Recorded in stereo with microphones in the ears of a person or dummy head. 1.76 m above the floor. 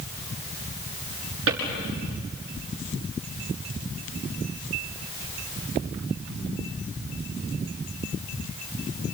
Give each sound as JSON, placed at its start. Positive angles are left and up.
{"t": 1.5, "sound": "a drawer", "side_deg": -70, "distance_m": 6.0}